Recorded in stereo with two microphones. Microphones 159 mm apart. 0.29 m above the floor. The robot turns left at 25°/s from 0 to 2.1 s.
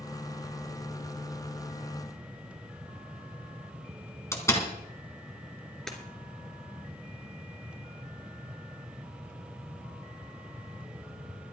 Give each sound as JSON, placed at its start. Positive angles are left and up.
{"t": 4.3, "sound": "a door slam", "side_deg": 20, "distance_m": 2.0}
{"t": 5.9, "sound": "breaking glass", "side_deg": 5, "distance_m": 2.5}